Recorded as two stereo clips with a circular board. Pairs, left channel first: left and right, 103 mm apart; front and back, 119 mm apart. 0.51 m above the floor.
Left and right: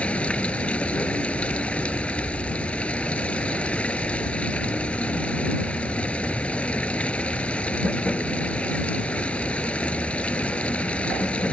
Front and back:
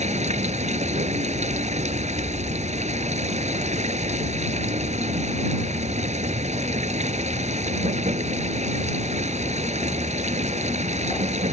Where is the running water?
170° left.